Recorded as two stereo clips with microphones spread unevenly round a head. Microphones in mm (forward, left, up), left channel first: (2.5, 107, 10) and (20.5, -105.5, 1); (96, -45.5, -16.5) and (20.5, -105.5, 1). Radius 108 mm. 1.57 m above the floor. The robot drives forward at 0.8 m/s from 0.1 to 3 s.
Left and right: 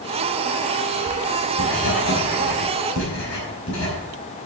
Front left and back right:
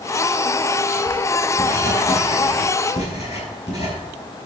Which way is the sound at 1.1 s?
75° left.